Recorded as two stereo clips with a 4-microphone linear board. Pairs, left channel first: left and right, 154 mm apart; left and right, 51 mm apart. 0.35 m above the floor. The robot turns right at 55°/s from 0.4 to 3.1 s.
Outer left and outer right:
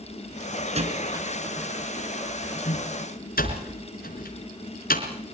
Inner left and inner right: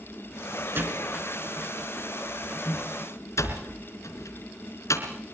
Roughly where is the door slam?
Right.